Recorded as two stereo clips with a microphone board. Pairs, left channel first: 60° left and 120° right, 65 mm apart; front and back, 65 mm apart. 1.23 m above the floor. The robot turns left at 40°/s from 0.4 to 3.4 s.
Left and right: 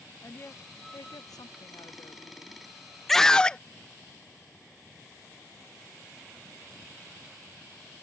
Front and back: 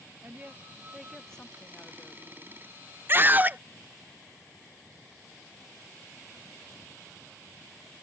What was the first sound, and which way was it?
A woman speaking, 115° left.